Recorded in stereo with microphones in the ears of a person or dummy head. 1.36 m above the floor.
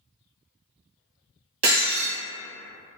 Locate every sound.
1.6 s breaking glass: 50° right (ahead or behind), 1.4 m